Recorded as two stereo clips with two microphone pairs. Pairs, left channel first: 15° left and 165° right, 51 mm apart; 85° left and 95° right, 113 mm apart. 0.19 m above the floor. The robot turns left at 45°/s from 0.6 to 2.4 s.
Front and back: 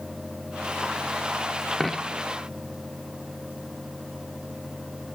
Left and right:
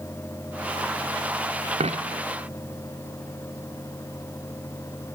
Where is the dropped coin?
75° right, 0.7 m; by 2.2 s 95° right, 0.7 m.